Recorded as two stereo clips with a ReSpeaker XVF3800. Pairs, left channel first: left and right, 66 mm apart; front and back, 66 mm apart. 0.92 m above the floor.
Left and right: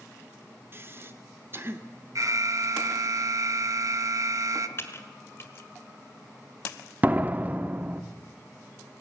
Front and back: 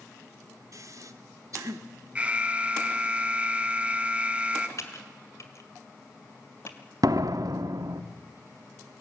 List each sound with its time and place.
0.7 s breathing: 145° right, 1.2 m
2.1 s an alarm: 110° right, 1.1 m
4.8 s typing on a keyboard: 40° left, 1.9 m
7.0 s a door slam: 155° right, 0.9 m